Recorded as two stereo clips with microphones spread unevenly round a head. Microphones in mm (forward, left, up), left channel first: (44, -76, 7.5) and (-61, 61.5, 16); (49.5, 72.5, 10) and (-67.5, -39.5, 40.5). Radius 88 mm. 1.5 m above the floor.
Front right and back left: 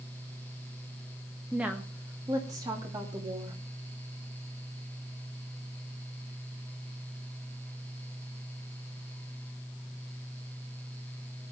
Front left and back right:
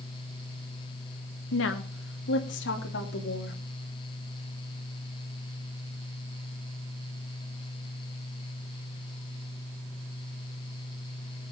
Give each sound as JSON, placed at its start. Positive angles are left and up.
{"t": 1.5, "sound": "a woman speaking", "azimuth_deg": 40, "distance_m": 1.5}